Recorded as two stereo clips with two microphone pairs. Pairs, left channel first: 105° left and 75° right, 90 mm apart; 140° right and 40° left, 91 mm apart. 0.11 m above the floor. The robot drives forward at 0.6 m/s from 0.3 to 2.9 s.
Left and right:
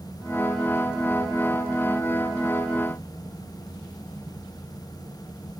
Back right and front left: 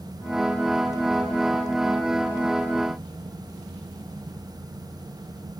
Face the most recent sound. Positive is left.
No sound to turn to.